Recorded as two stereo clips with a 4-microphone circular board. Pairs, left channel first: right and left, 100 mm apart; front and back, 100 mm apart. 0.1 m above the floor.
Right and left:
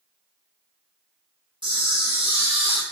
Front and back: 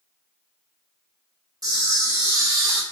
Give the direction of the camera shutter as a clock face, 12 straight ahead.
8 o'clock.